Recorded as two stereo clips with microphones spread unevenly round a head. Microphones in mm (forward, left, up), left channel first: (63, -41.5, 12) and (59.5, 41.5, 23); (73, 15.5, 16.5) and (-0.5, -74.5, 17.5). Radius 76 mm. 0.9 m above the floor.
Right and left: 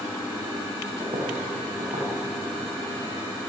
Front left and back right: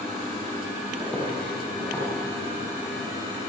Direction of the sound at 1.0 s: 140° left.